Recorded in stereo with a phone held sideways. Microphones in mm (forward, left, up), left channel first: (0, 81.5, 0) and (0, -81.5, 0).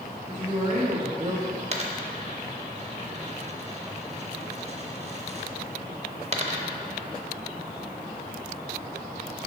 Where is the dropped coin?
40° right (ahead or behind), 0.6 m.